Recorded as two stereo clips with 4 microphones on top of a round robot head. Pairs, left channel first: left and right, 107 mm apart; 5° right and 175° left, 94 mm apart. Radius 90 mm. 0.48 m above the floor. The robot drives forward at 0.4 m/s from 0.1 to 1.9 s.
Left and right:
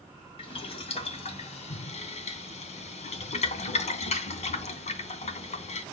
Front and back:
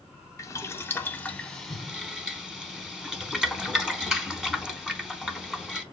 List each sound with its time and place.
0.4 s boiling: 50° left, 1.0 m; by 5.8 s 90° left, 0.8 m